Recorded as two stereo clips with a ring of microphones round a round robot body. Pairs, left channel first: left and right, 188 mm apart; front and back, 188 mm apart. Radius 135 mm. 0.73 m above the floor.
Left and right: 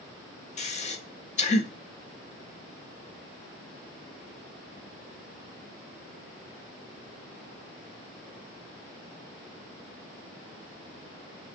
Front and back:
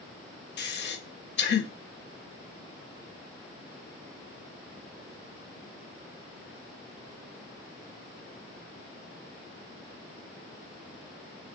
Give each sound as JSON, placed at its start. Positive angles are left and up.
{"t": 0.6, "sound": "breathing", "azimuth_deg": 30, "distance_m": 0.6}